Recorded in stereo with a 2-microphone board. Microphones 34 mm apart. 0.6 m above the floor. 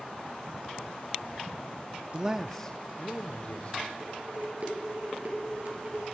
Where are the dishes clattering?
55° right (ahead or behind), 7.5 m.